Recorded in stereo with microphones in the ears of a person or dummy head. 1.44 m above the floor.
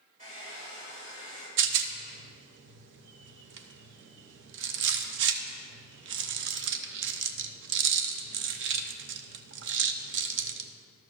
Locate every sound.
0.2 s a hair dryer: 35° right (ahead or behind), 3.5 m
1.6 s a rattle: 70° right (ahead or behind), 0.7 m